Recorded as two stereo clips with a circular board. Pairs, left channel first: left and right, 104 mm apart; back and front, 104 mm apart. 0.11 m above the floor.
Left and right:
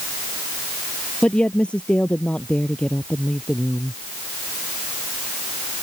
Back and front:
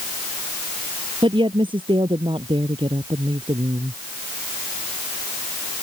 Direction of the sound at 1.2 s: 15° left.